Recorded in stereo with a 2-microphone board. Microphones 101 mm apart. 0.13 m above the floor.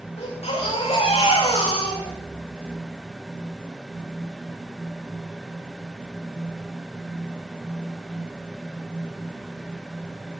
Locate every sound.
0.2 s a baby crying: 75° left (ahead or behind), 8 m